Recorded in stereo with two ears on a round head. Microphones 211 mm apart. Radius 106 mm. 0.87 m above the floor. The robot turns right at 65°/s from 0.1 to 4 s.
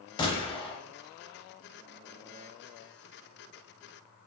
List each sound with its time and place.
0.2 s a gunshot: 20° left (ahead or behind), 0.7 m; by 0.8 s 25° left (ahead or behind), 0.7 m